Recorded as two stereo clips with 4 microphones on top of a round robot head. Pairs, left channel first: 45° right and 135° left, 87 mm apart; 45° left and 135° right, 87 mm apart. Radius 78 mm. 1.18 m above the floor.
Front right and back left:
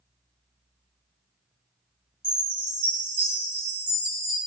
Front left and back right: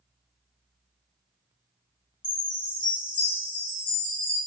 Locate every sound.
2.2 s a chime: 65° left, 1.9 m